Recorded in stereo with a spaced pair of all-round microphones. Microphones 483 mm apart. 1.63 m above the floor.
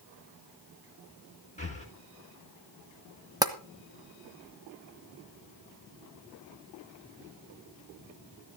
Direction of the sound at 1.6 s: 15° left (ahead or behind).